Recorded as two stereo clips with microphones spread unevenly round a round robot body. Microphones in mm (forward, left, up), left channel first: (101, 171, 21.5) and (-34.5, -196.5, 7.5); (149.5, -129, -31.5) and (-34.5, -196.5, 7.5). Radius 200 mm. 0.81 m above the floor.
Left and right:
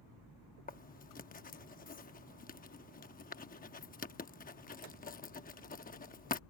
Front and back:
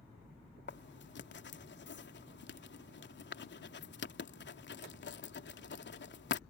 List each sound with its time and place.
0.7 s writing: straight ahead